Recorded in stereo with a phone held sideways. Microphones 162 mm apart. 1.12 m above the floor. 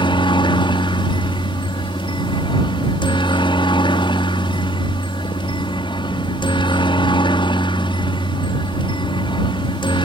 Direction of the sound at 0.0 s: 30° left (ahead or behind).